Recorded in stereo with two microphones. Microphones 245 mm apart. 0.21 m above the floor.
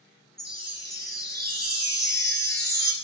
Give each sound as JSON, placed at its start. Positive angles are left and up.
{"t": 0.4, "sound": "a chime", "side_deg": -40, "distance_m": 0.8}